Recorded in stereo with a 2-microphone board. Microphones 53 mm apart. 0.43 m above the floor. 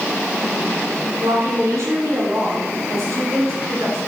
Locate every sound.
1.2 s a woman speaking: 75° right (ahead or behind), 4 m